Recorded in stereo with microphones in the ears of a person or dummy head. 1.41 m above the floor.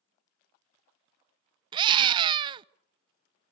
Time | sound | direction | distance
1.7 | a scream | 30° right (ahead or behind) | 0.5 m